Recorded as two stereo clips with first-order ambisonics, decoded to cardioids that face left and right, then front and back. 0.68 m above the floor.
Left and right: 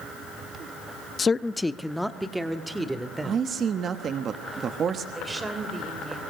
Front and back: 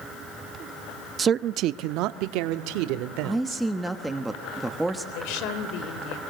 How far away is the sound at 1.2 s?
About 0.5 m.